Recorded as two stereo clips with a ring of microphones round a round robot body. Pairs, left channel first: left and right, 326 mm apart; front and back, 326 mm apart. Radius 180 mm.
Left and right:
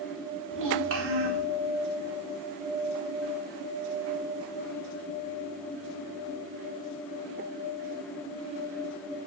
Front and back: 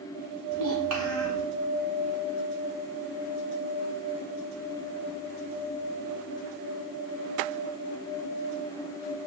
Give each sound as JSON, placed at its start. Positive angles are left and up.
{"t": 0.5, "sound": "a child speaking", "azimuth_deg": -140, "distance_m": 3.0}